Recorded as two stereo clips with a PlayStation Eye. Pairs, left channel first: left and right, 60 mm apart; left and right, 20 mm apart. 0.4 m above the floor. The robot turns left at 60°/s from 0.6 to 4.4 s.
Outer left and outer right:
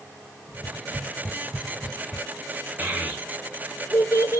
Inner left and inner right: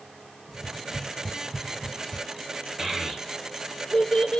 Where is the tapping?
65° right (ahead or behind), 1.6 m; by 2.2 s 35° left (ahead or behind), 1.6 m.